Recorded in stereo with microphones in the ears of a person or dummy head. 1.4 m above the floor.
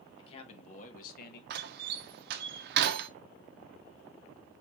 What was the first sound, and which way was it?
A man speaking, 30° left (ahead or behind).